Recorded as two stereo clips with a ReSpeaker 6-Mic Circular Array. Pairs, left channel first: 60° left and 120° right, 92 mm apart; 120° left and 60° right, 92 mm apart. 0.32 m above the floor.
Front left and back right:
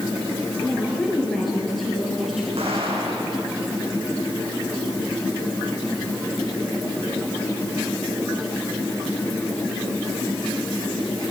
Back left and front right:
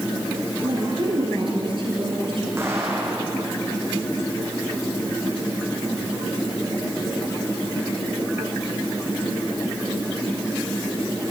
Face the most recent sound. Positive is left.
turn(degrees=-125)